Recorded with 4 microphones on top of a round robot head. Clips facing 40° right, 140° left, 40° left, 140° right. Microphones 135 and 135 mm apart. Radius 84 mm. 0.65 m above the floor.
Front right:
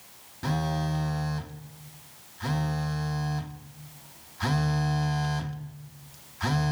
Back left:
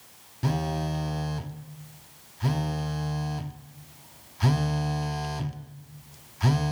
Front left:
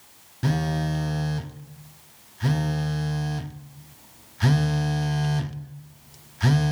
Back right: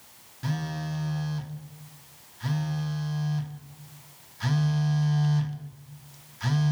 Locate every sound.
0.4 s a phone buzzing: 65° left, 0.8 m